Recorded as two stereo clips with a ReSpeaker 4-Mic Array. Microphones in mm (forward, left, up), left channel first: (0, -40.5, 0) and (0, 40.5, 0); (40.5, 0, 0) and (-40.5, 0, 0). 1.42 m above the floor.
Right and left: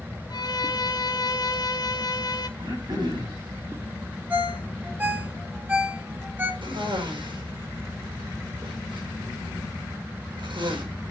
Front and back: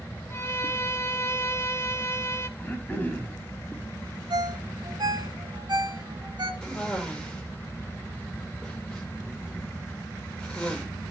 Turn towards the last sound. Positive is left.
turn(degrees=85)